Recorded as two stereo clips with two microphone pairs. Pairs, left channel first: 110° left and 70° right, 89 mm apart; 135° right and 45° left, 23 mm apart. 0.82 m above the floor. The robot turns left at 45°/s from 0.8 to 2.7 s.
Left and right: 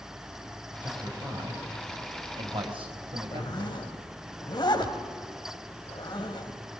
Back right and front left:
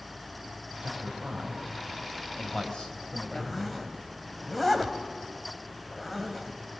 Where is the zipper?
140° left, 2 m.